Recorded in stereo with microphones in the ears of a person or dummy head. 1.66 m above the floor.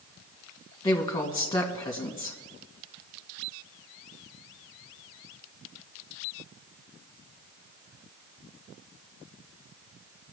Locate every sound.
0.8 s a woman speaking: 20° left (ahead or behind), 2 m